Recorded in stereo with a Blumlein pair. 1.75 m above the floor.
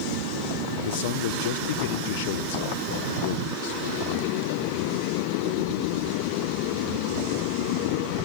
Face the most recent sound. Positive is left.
turn(degrees=55)